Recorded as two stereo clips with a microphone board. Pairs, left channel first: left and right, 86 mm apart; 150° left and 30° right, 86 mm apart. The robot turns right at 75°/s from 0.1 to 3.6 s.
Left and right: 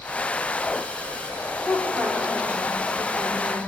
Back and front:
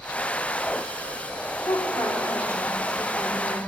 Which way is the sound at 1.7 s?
145° left.